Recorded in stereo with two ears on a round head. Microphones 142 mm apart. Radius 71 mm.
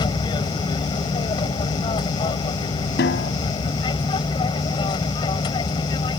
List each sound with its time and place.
0.0 s an aircraft: 30° left (ahead or behind)
3.0 s a snare drum: 75° left (ahead or behind)